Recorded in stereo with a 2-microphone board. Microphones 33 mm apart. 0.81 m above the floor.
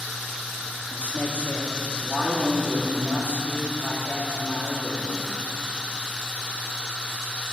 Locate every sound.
0.9 s a man speaking: 60° left (ahead or behind), 1.9 m